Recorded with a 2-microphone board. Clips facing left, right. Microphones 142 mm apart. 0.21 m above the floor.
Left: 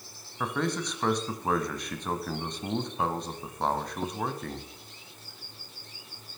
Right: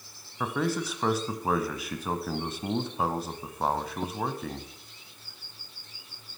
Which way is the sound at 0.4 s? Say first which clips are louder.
Right 1 dB; 5° right (ahead or behind).